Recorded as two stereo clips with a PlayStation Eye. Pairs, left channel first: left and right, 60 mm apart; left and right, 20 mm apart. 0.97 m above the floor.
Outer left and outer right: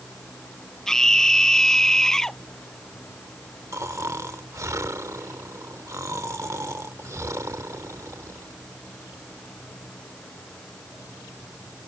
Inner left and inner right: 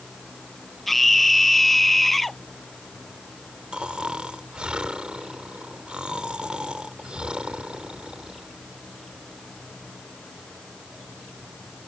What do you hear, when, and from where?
0.9 s a scream: 5° left (ahead or behind)
3.7 s snoring: 60° right (ahead or behind)